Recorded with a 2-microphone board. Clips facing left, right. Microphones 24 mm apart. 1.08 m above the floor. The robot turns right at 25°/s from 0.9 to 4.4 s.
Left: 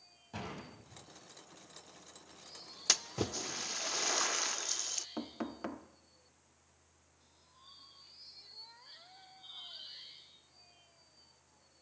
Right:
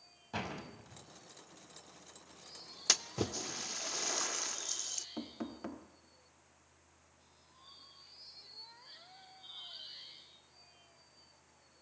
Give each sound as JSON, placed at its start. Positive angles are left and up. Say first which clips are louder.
{"t": 0.3, "sound": "a door slam", "louder": "right 3 dB", "side_deg": -30, "distance_m": 5.5}
{"t": 2.9, "sound": "a splash", "louder": "even", "side_deg": 0, "distance_m": 0.7}
{"t": 5.2, "sound": "knocking", "louder": "left 2 dB", "side_deg": 25, "distance_m": 1.1}